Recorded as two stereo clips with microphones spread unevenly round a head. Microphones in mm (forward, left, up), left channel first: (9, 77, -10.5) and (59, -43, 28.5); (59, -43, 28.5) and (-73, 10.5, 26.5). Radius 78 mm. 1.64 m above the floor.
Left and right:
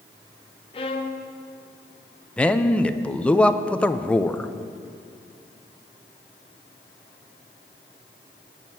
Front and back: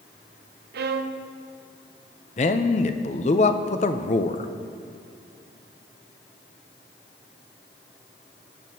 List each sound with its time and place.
0.7 s a violin: 165° left, 0.6 m
2.4 s a man speaking: 25° left, 0.6 m